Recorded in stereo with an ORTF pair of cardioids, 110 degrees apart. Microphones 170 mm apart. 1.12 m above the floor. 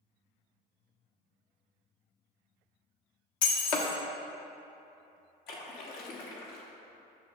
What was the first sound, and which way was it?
Breaking glass, 55° left.